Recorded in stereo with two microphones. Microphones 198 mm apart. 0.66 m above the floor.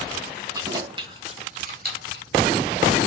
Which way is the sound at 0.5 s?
20° right (ahead or behind).